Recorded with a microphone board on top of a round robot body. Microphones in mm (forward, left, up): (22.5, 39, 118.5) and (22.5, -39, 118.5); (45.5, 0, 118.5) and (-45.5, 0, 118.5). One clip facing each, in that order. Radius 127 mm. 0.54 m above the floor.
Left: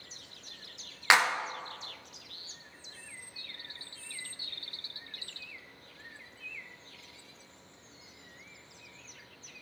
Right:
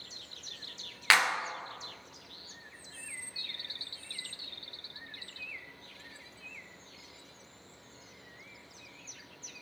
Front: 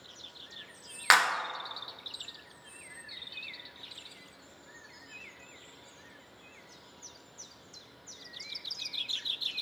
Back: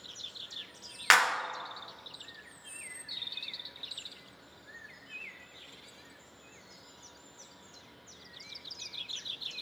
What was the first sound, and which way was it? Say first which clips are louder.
A clap: left 2 dB, even; 65° left.